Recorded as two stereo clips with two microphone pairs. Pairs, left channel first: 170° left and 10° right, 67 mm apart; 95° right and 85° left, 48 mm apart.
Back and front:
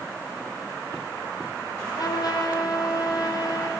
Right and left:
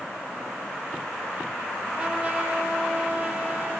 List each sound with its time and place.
1.9 s a trumpet: 155° left, 7 m